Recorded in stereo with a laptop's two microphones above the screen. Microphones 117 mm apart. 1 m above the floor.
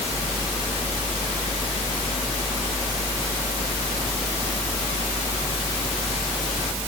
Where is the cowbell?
I don't hear a cowbell.